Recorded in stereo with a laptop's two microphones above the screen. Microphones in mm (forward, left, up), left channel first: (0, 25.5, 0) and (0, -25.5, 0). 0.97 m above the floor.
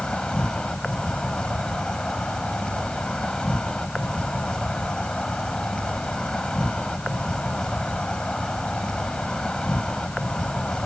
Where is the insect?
15° left (ahead or behind).